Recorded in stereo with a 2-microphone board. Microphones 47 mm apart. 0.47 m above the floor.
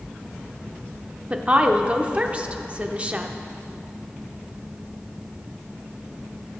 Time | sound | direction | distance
1.3 | a woman speaking | 25° right (ahead or behind) | 0.7 m